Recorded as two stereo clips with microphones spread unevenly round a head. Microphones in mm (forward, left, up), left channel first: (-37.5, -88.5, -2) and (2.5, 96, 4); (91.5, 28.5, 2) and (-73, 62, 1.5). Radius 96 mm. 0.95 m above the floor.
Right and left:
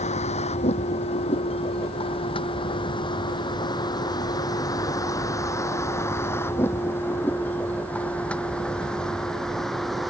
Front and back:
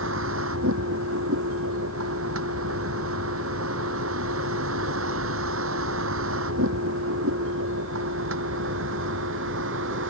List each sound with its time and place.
0.0 s a vehicle: 160° right; by 10.1 s 170° left